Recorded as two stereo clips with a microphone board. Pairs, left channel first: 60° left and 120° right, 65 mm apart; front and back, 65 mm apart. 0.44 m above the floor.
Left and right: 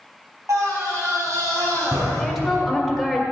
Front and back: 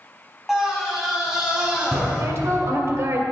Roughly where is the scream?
Right.